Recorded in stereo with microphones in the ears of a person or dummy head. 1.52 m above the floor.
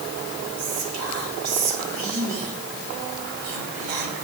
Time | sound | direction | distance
0.6 | whispering | 80° right | 3.5 m